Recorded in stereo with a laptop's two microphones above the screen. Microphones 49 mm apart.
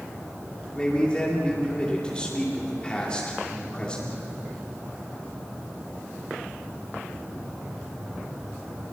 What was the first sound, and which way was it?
A man speaking, 20° left (ahead or behind).